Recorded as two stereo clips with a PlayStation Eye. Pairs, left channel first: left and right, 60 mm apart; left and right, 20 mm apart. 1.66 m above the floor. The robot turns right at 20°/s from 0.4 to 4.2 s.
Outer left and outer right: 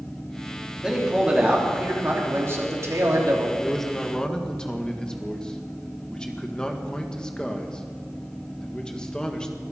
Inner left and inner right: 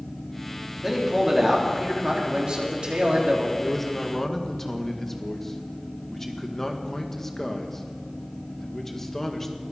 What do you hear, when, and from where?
0.8 s a man speaking: 170° right, 3.5 m; by 3.5 s 115° right, 3.5 m
3.6 s a man speaking: centre (ahead or behind), 1.7 m; by 9.6 s 15° left (ahead or behind), 1.7 m